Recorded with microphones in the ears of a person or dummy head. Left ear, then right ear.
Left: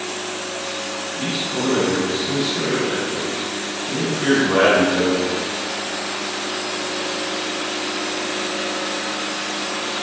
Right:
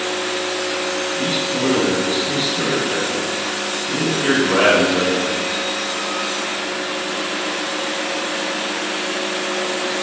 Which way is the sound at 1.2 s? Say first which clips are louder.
Right 1 dB; 15° right (ahead or behind).